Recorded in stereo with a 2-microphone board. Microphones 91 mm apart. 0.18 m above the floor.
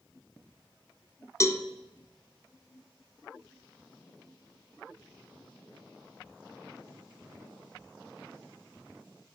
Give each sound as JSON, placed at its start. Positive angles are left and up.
{"t": 1.4, "sound": "a cowbell", "side_deg": 35, "distance_m": 0.8}